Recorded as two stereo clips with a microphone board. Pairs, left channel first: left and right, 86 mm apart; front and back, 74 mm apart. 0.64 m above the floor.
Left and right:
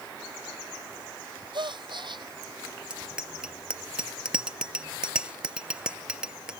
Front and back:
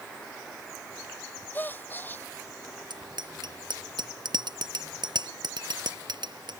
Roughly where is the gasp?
Ahead right.